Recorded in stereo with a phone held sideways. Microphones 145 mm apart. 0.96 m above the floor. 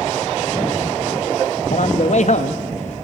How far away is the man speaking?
About 1.3 m.